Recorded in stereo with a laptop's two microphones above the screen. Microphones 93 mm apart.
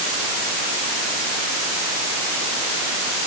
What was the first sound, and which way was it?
Only background noise.